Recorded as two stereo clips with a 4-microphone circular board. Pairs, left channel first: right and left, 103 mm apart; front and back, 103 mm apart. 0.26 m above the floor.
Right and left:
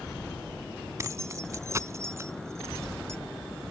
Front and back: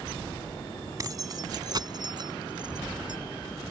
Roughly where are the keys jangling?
Behind left.